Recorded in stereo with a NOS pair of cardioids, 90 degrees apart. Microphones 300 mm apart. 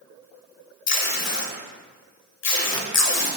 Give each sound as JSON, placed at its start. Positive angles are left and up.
{"t": 0.9, "sound": "tape being pulled", "azimuth_deg": 60, "distance_m": 0.8}